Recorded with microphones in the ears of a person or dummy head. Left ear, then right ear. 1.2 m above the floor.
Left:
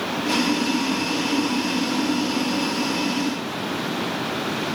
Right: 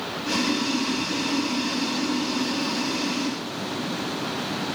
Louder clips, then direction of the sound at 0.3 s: Left 2 dB; 5° left (ahead or behind).